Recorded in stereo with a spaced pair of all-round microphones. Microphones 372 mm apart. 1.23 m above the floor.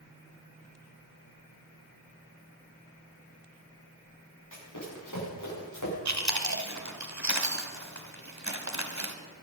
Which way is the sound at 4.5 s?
55° left (ahead or behind).